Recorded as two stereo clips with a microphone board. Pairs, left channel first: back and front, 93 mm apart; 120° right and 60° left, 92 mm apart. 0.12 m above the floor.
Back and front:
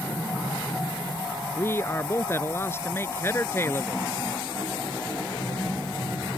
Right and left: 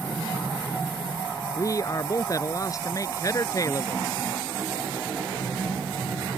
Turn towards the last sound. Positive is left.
turn(degrees=-135)